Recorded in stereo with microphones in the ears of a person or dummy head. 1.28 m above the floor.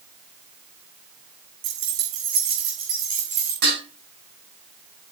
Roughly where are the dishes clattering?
Right.